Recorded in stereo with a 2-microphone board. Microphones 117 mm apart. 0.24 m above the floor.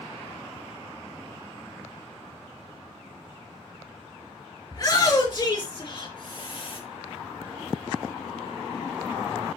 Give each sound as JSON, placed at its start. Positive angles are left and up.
{"t": 4.7, "sound": "a shout", "side_deg": 30, "distance_m": 4.5}